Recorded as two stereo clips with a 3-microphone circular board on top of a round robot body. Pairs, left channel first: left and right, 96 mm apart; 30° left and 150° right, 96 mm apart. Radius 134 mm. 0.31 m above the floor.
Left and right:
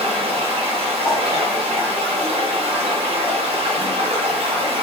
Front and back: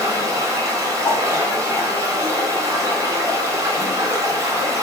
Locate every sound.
0.0 s running water: 90° right, 0.7 m
1.0 s a whoosh: 10° left, 1.6 m